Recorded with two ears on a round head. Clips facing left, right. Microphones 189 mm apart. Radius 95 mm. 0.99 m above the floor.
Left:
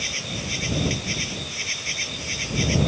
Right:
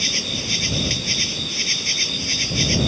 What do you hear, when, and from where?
0.0 s an insect: 55° right (ahead or behind)